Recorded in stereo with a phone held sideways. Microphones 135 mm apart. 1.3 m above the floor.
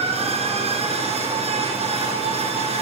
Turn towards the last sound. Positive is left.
turn(degrees=-50)  # may be behind; listen again after turning